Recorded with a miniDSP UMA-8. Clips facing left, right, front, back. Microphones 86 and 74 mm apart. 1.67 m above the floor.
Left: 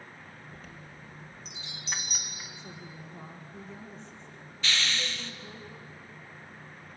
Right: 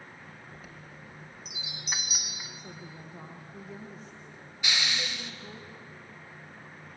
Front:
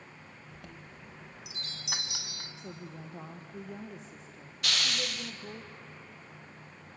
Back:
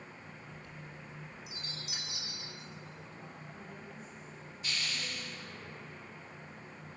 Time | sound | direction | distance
0.5 | a chime | 5° right | 2 m
2.6 | a woman speaking | 5° right | 1.6 m
4.6 | a hiss | 15° right | 1.2 m